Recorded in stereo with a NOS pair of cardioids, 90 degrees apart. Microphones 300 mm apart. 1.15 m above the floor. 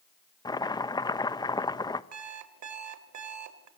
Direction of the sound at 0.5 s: 15° left.